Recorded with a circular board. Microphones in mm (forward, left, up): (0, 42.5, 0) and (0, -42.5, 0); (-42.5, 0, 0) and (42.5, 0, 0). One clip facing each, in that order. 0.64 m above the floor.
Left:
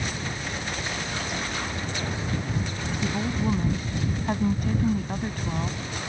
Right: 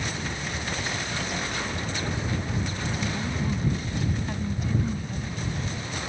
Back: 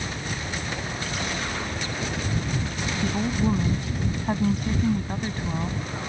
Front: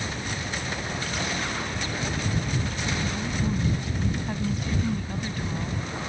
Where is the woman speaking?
145° left; by 5.8 s 115° left.